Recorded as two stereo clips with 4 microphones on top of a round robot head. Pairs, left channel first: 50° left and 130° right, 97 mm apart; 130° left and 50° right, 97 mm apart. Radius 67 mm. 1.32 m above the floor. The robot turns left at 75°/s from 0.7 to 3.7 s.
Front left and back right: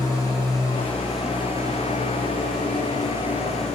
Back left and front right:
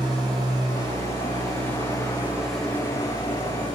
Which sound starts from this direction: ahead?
An engine running, at 0.0 s.